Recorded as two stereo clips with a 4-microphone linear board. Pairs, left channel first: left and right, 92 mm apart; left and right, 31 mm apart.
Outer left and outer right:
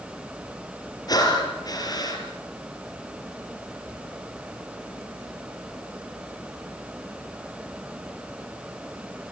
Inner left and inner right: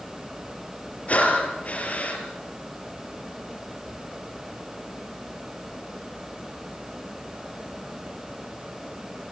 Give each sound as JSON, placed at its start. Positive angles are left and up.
{"t": 1.1, "sound": "breathing", "side_deg": 45, "distance_m": 4.0}